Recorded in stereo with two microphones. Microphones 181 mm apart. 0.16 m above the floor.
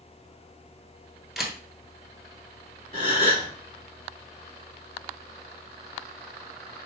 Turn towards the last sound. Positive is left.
turn(degrees=-50)  # may be behind; listen again after turning